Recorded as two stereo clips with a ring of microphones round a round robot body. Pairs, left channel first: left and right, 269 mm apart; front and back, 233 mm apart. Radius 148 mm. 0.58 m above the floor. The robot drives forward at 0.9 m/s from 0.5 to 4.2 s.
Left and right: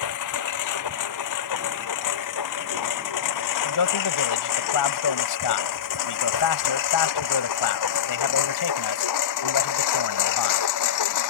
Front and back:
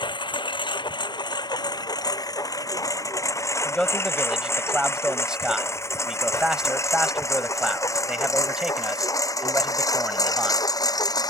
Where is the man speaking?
85° left; by 10.6 s 95° left.